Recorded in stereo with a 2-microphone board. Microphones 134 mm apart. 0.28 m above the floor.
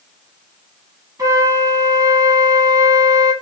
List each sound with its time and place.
1.2 s a flute: 25° right (ahead or behind), 0.7 m